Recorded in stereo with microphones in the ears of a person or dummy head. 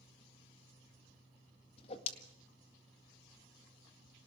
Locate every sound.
1.8 s a whoosh: 40° left (ahead or behind), 1.9 m